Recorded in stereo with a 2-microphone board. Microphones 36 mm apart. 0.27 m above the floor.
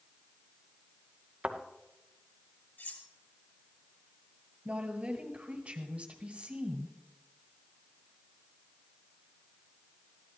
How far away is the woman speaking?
About 1.6 m.